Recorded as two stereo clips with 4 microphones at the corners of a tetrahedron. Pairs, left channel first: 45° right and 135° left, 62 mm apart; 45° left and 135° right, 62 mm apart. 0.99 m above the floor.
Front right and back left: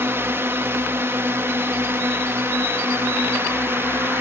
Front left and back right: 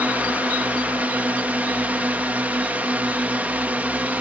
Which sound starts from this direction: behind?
A drone, at 0.0 s.